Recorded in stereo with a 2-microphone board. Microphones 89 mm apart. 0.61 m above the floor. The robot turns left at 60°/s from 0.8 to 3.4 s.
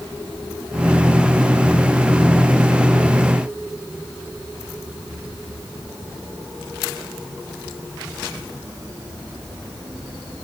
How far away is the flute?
I don't hear a flute.